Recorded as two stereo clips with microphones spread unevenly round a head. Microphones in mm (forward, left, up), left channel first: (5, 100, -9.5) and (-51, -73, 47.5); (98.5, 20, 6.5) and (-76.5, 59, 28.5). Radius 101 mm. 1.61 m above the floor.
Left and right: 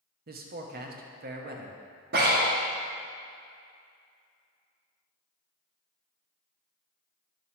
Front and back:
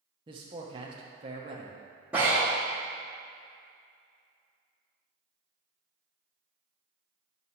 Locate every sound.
0.3 s a man speaking: 130° right, 0.9 m
2.1 s breathing: 115° right, 1.3 m